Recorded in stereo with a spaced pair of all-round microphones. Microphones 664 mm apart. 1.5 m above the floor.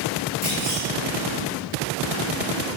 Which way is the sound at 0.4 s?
45° left (ahead or behind).